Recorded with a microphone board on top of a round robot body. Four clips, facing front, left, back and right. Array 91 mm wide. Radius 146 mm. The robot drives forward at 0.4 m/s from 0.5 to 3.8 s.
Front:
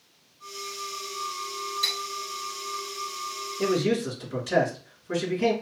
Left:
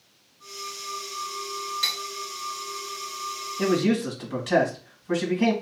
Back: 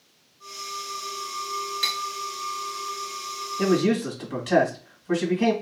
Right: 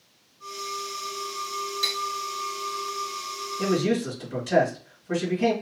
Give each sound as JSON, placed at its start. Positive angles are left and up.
{"t": 1.8, "sound": "cutlery clinking", "azimuth_deg": 160, "distance_m": 1.2}
{"t": 3.6, "sound": "a man speaking", "azimuth_deg": 150, "distance_m": 2.0}